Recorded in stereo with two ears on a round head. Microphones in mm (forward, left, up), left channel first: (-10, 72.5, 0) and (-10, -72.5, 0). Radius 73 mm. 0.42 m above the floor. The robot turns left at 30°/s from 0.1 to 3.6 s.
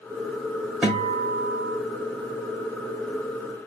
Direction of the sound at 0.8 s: 10° right (ahead or behind).